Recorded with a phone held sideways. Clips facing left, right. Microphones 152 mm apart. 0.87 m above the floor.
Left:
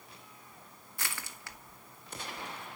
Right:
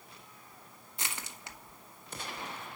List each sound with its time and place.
1.0 s crushing: 20° right (ahead or behind), 0.9 m